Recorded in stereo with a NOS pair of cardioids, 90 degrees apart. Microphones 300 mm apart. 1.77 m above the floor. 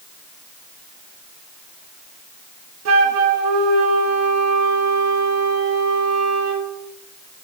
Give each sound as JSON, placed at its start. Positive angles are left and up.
{"t": 2.9, "sound": "a flute", "azimuth_deg": -60, "distance_m": 2.5}